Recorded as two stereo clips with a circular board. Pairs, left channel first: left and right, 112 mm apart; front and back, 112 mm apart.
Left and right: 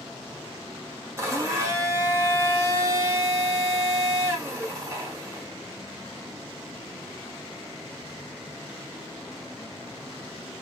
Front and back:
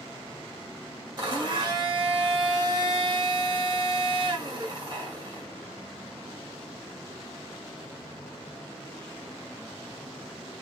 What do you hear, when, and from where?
1.2 s a blender: 150° right, 1.0 m